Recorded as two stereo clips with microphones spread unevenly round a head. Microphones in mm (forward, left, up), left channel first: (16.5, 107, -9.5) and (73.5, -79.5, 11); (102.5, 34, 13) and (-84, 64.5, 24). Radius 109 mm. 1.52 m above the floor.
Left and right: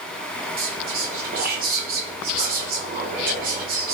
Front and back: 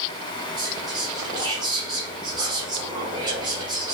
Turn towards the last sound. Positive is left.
turn(degrees=-120)